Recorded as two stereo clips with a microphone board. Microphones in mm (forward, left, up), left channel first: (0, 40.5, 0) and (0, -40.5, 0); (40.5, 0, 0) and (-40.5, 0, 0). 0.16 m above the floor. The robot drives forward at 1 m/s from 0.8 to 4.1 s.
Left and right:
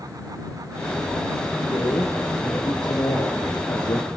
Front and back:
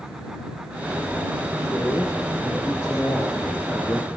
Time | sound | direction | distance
1.6 | a man speaking | 40° left | 6.5 m